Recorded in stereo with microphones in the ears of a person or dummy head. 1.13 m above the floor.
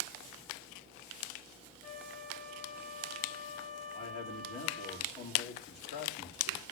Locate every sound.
1.8 s a flute: 40° left (ahead or behind), 6.5 m
3.9 s a man speaking: 50° left (ahead or behind), 2 m